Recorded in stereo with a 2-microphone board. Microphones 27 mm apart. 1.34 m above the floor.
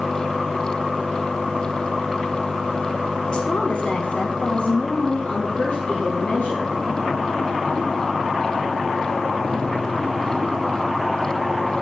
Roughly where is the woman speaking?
Left.